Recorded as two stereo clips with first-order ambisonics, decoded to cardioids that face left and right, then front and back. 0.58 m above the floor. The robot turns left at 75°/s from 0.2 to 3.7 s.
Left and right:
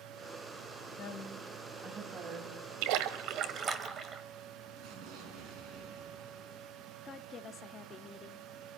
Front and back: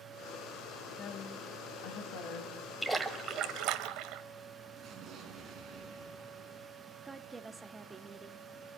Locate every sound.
1.0 s a woman speaking: 70° left, 3.5 m; by 2.5 s 45° right, 3.5 m
2.8 s a splash: 85° right, 1.6 m; by 4.2 s 155° right, 1.6 m
4.8 s an explosion: 120° right, 5 m
7.0 s a woman speaking: 115° left, 0.7 m